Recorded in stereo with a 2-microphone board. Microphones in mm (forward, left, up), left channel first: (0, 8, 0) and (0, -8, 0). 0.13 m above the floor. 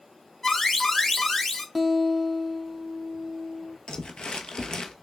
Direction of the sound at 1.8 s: Centre (ahead or behind).